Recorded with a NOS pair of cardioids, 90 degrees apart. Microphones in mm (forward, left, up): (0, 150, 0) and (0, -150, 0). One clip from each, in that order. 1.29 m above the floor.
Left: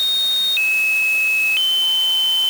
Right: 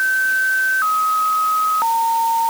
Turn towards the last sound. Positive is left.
No sound to turn to.